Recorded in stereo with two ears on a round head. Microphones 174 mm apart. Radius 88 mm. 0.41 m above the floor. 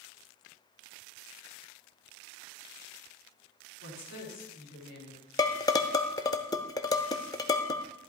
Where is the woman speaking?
65° left (ahead or behind), 5 m.